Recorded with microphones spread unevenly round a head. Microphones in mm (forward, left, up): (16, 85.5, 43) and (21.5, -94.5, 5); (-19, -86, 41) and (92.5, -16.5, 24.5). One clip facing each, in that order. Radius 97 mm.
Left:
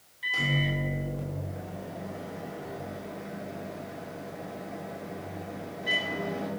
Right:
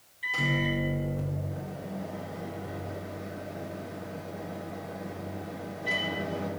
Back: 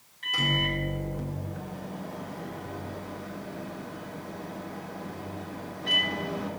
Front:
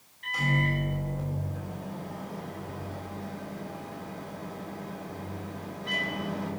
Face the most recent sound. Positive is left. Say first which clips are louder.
# right 1 dB, front 1 dB
turn(degrees=175)